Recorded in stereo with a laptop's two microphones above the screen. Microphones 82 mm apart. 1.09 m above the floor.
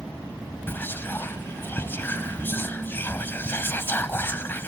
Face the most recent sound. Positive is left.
turn(degrees=20)  # may be behind; listen again after turning